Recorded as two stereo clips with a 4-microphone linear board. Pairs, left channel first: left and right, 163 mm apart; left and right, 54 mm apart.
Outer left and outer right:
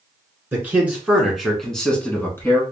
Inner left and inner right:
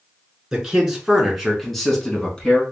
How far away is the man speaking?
About 1.5 m.